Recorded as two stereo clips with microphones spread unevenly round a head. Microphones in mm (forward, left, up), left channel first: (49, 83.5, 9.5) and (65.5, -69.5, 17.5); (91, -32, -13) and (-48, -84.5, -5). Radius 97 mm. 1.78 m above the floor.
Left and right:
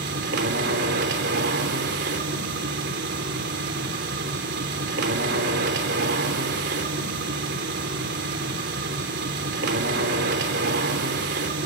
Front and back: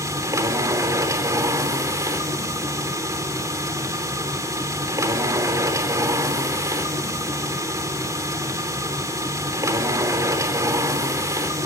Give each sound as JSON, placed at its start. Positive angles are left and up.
{"t": 0.0, "sound": "a machine running", "azimuth_deg": -95, "distance_m": 3.5}